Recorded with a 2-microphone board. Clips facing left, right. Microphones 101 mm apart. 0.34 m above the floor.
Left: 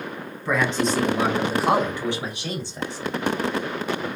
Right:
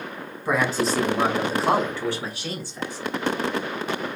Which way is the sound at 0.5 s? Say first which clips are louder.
Even; 10° right (ahead or behind).